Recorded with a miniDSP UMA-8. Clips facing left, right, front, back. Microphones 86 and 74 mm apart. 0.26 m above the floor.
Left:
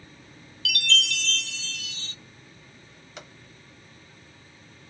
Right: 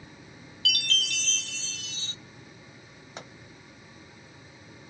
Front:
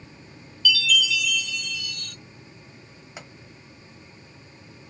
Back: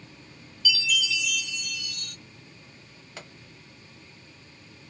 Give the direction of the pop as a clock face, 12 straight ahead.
2 o'clock.